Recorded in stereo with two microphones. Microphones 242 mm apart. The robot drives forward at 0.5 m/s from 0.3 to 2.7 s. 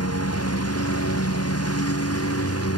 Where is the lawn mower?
85° left; by 2.8 s 80° left.